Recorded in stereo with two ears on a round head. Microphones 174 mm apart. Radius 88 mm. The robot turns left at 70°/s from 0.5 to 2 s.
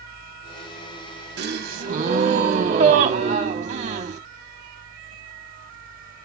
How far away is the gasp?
About 1.2 m.